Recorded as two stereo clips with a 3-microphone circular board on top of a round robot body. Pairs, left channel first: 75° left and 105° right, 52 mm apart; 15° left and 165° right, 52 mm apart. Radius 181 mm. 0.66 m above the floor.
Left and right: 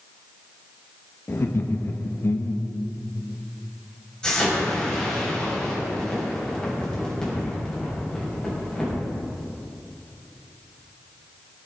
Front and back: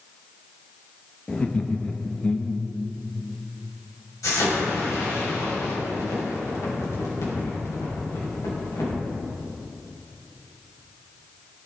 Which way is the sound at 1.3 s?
75° left.